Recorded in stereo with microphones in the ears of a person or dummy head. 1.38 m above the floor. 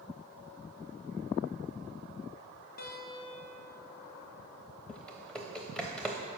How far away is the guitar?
About 0.7 m.